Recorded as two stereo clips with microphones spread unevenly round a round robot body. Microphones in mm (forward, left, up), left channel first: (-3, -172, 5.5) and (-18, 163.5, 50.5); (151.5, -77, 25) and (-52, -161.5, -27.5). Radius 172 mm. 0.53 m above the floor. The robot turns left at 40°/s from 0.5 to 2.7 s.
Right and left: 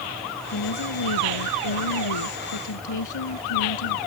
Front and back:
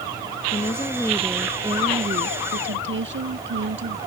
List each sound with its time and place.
0.5 s a woman speaking: 35° right; by 4.0 s 125° right